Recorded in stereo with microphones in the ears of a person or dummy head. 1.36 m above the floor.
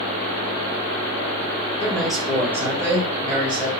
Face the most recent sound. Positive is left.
turn(degrees=-30)  # may be behind; listen again after turning